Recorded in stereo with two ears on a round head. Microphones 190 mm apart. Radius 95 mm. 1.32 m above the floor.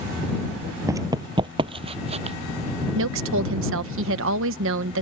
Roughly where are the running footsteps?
Centre.